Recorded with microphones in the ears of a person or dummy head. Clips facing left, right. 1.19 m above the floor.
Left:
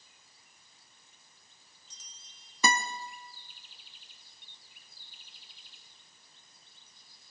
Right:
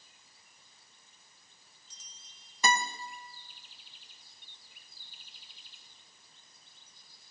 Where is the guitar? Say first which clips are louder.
Even; 70° left (ahead or behind), 1.0 m.